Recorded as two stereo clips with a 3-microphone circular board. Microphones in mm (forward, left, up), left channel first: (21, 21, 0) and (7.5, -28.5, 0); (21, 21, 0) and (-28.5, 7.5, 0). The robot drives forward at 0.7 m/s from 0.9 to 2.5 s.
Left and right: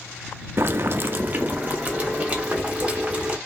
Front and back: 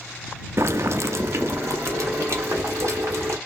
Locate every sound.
0.6 s boiling: 145° right, 0.5 m; by 3.4 s 170° right, 1.5 m